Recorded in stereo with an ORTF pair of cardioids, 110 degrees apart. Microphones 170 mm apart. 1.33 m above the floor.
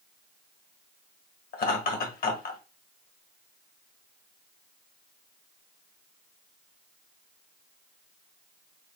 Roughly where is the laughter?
Ahead left.